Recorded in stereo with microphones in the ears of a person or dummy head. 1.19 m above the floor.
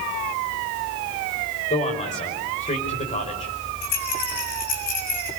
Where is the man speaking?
30° left (ahead or behind), 5.5 m.